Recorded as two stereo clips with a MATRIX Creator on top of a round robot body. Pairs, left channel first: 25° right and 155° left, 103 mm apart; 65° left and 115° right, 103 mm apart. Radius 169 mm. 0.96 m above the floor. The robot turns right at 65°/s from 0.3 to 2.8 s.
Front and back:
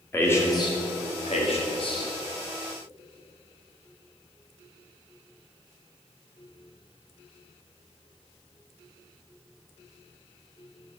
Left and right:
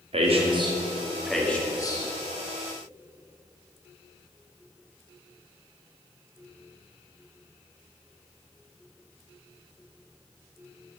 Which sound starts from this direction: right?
A man speaking, at 0.1 s.